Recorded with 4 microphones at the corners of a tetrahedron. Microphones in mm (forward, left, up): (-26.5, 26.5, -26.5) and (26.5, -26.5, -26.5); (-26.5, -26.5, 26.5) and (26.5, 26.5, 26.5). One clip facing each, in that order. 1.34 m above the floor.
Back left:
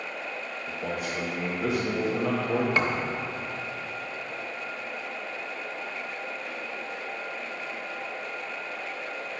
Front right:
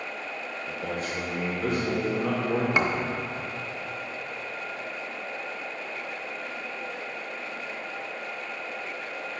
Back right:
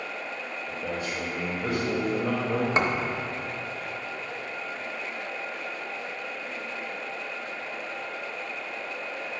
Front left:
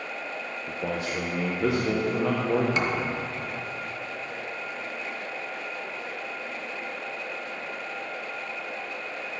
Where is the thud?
110° right, 0.8 m.